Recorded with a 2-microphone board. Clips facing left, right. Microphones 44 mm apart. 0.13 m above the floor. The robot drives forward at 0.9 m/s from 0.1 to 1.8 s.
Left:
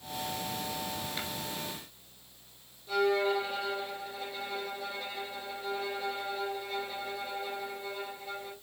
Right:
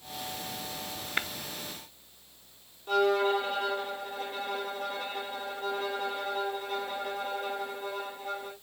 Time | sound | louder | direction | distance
1.2 | tapping | right 11 dB | 50° right (ahead or behind) | 0.8 m
2.9 | a violin | right 2 dB | 55° right (ahead or behind) | 4.5 m